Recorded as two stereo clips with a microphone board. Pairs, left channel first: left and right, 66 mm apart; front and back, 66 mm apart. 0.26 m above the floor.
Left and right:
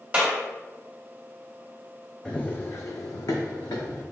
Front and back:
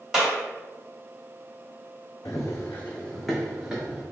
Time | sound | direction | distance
0.1 | a clap | 110° right | 1.2 m
2.2 | running footsteps | 15° left | 0.7 m